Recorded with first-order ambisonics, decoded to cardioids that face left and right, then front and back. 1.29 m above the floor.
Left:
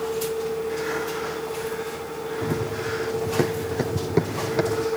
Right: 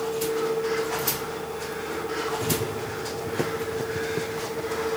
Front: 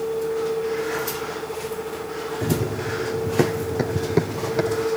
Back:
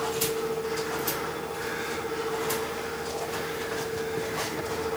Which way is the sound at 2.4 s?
5° left.